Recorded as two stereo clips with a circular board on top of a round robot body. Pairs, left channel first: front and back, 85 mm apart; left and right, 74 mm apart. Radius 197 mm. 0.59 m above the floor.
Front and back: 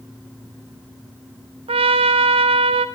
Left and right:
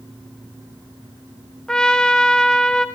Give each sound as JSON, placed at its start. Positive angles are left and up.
{"t": 1.7, "sound": "a trumpet", "azimuth_deg": 170, "distance_m": 0.5}